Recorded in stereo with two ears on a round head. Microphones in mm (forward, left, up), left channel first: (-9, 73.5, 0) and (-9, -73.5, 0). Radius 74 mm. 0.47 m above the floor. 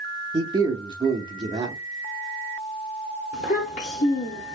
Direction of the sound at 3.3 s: 50° left (ahead or behind).